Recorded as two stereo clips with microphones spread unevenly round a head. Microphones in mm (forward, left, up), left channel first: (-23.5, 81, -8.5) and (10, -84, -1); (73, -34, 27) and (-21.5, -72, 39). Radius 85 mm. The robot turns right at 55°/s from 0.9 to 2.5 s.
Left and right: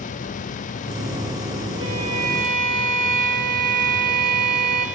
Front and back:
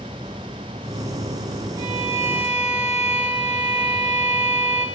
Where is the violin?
115° right, 4 m; by 4.9 s 75° right, 4 m.